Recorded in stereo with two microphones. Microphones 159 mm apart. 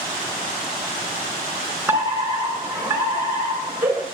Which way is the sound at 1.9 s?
15° right (ahead or behind).